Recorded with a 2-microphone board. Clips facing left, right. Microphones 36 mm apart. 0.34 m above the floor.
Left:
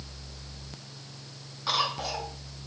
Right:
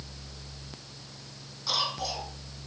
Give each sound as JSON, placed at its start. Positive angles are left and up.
{"t": 1.7, "sound": "a cough", "side_deg": 35, "distance_m": 3.5}